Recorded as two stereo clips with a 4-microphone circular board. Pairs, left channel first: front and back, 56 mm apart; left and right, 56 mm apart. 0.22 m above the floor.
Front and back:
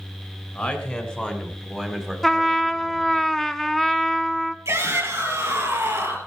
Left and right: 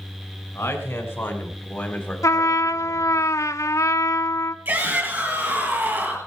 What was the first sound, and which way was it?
A man speaking, 55° left.